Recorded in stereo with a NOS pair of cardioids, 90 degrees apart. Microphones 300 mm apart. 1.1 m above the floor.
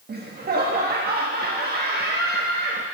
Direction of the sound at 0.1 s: 30° right.